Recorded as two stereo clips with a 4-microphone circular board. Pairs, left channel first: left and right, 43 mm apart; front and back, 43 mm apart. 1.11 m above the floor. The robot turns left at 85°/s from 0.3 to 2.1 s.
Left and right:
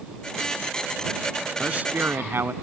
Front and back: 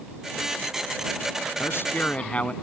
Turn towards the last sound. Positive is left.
turn(degrees=-60)